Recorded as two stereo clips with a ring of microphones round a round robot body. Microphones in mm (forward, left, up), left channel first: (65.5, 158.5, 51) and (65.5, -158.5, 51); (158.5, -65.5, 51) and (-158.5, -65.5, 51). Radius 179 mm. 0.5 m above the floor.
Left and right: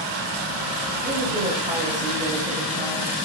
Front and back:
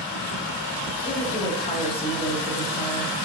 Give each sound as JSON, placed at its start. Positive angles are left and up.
{"t": 1.1, "sound": "a woman speaking", "azimuth_deg": -55, "distance_m": 1.3}